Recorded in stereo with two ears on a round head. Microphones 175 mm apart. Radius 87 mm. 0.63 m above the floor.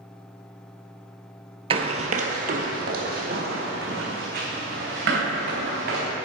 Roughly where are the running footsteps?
Right.